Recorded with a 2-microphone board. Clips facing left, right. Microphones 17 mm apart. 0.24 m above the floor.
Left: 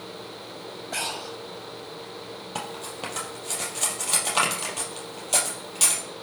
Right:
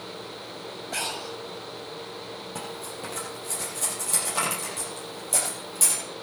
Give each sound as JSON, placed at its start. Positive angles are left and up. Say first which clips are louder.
{"t": 0.9, "sound": "breathing", "louder": "left 1 dB", "side_deg": 0, "distance_m": 0.9}
{"t": 2.5, "sound": "cutlery clinking", "louder": "left 5 dB", "side_deg": 45, "distance_m": 4.0}